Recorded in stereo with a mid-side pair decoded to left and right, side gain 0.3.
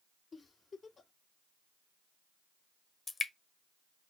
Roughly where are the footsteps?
I don't hear footsteps.